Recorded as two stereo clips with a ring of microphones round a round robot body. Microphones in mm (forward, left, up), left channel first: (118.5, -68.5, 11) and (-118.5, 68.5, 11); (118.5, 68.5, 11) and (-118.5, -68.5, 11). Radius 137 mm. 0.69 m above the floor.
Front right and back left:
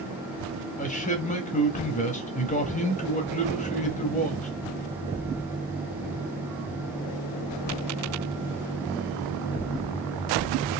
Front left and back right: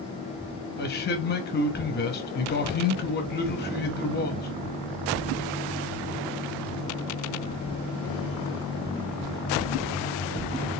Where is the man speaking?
15° left, 0.9 m.